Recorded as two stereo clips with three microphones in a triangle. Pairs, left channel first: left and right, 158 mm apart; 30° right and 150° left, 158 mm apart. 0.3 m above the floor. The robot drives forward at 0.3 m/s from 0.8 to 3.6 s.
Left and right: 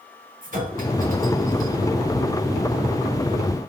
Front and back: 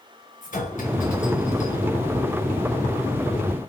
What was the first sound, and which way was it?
A clink, 60° right.